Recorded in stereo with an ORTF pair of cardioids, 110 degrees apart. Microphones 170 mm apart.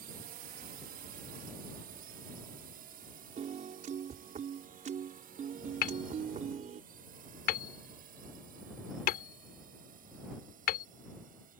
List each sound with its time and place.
0.0 s a drone: 60° right; by 11.6 s 50° right
3.4 s a piano: 45° right
5.8 s hammering: 70° left